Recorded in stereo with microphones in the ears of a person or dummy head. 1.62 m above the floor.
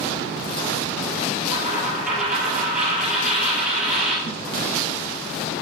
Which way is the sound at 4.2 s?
35° left (ahead or behind).